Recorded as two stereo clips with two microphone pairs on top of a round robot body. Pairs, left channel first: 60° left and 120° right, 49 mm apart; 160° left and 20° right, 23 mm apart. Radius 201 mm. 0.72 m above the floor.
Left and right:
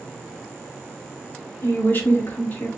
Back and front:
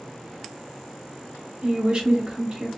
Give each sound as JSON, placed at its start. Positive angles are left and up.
{"t": 1.6, "sound": "a woman speaking", "azimuth_deg": 10, "distance_m": 2.0}